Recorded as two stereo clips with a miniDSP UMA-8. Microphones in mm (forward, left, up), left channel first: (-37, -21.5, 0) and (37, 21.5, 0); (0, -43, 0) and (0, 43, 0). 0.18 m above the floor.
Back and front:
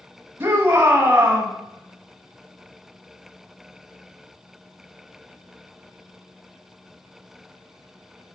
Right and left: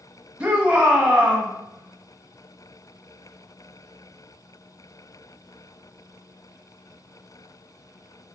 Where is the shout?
35° left, 1.1 m.